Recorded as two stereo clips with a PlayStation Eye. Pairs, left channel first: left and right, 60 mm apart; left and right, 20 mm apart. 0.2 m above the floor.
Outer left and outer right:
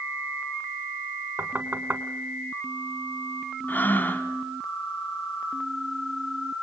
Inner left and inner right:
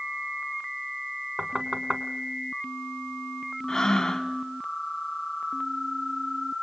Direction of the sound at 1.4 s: 40° right (ahead or behind).